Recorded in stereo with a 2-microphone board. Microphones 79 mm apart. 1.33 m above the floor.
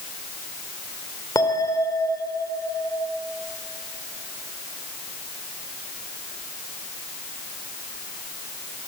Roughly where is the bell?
Left.